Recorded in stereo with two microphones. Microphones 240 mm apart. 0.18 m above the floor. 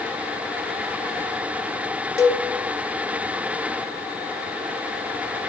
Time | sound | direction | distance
2.2 | a cowbell | 15° left (ahead or behind) | 0.6 m